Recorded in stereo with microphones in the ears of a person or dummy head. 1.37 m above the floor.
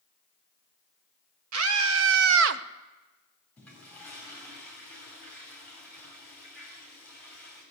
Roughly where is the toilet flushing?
Centre.